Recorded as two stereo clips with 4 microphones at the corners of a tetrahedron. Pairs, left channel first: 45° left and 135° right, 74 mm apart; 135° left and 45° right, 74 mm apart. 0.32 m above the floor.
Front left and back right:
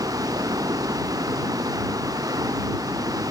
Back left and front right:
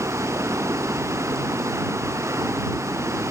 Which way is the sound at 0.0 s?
95° right.